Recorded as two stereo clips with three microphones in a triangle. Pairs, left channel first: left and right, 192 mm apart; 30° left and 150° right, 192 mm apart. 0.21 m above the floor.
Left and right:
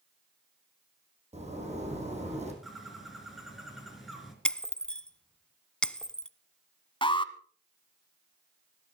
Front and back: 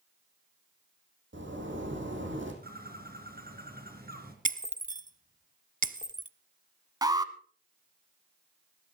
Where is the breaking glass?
175° left, 0.6 m.